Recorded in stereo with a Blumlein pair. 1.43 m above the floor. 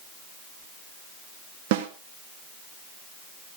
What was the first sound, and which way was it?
A snare drum, 50° right.